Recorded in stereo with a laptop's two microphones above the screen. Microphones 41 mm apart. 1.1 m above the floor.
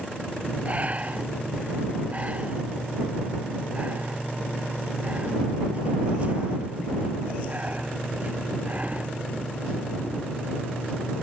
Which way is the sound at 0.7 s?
35° right (ahead or behind).